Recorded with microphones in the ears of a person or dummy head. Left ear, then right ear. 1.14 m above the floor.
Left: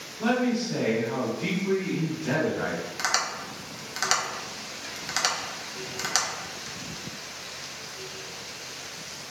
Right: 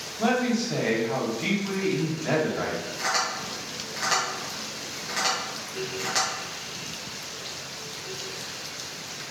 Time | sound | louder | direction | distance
0.2 | a man speaking | right 1 dB | 45° right (ahead or behind) | 1.1 m
3.0 | tapping | right 1 dB | 30° left (ahead or behind) | 0.9 m